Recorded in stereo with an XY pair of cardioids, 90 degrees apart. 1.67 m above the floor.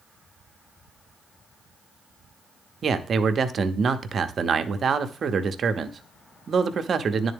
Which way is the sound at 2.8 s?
50° right.